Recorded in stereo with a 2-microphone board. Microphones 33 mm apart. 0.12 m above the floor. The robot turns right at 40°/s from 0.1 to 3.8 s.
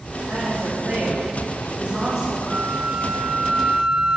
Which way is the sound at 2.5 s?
85° right.